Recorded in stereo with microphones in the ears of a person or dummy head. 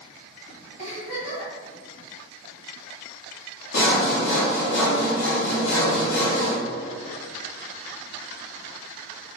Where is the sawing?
55° left (ahead or behind), 1.8 m.